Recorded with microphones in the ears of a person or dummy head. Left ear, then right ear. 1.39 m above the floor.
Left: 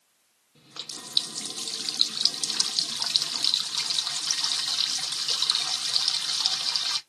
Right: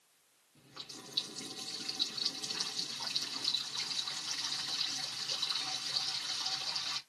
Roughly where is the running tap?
Left.